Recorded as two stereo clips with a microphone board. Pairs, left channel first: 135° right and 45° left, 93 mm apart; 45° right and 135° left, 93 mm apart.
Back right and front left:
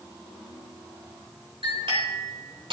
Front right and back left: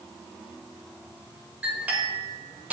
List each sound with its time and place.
1.6 s a clink: 60° left, 2.5 m